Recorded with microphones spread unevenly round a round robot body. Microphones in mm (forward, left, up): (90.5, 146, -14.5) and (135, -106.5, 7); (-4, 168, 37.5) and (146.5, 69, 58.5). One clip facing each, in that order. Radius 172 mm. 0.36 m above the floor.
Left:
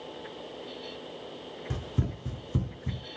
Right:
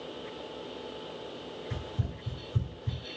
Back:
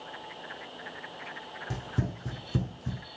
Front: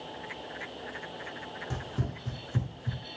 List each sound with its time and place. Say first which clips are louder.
1.7 s running footsteps: left 4 dB, back 3 dB; 75° left, 1.6 m; by 3.0 s 105° left, 1.7 m